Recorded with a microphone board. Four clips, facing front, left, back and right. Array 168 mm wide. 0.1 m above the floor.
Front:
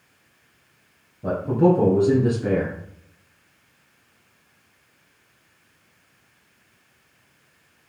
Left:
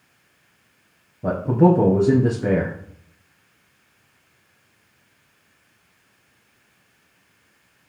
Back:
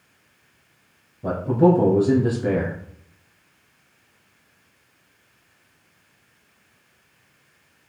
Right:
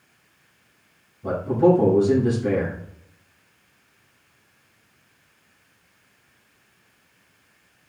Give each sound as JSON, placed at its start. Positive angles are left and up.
{"t": 1.2, "sound": "a man speaking", "azimuth_deg": 90, "distance_m": 2.5}